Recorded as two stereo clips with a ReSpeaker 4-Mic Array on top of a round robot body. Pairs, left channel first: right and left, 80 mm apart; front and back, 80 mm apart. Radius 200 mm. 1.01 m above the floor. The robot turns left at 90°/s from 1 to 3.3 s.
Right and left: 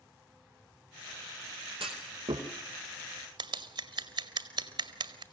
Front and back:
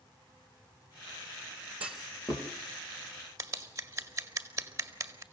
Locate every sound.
1.8 s a clunk: 105° left, 1.0 m; by 2.5 s 50° left, 1.0 m
3.4 s scissors: 125° left, 1.9 m